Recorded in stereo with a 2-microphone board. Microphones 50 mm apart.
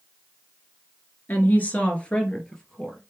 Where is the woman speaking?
40° left (ahead or behind), 1.9 m; by 3.0 s 10° left (ahead or behind), 3 m.